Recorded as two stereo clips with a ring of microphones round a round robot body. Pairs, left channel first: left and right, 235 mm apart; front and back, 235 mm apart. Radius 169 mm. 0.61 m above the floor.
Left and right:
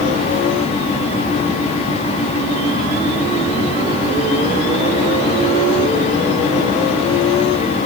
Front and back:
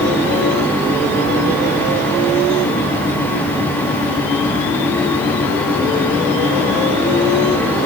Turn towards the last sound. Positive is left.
No sound to turn to.